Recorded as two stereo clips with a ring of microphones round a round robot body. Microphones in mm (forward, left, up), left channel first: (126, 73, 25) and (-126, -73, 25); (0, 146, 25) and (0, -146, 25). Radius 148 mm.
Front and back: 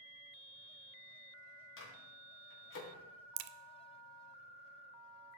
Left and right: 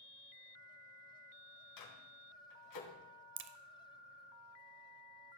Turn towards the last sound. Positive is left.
turn(degrees=-140)